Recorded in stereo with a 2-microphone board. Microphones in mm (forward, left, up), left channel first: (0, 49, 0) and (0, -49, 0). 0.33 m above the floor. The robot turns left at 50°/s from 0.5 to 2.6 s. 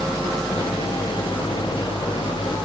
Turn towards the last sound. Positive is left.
No sound to turn to.